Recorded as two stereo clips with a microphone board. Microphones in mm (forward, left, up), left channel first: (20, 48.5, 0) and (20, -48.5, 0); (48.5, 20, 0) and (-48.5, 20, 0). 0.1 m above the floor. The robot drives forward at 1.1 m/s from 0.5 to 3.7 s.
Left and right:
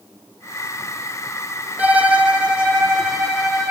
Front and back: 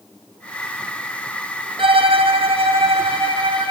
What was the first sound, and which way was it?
A violin, 165° right.